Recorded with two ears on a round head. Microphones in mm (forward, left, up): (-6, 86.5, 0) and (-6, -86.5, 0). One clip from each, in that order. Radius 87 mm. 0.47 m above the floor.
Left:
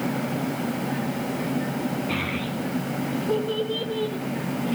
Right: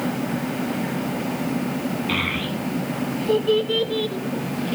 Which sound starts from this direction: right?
A child speaking, at 2.1 s.